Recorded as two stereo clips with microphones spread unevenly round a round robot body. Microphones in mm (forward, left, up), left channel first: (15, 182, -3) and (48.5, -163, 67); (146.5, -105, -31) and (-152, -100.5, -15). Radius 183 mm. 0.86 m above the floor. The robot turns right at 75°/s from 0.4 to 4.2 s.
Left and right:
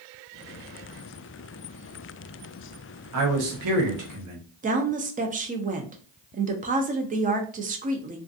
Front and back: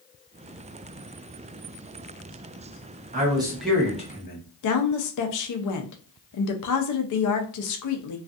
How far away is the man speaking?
About 1.0 m.